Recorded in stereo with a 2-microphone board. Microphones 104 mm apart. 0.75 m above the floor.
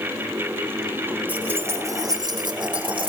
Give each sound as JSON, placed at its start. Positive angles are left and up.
{"t": 1.3, "sound": "keys jangling", "side_deg": -15, "distance_m": 1.8}